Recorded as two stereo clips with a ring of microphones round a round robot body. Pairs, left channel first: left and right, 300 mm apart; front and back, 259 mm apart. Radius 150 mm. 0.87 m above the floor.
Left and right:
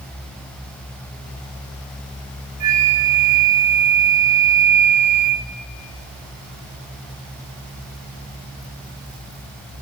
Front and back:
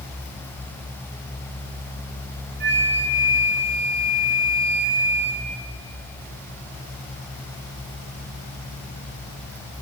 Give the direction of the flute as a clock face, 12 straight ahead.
4 o'clock.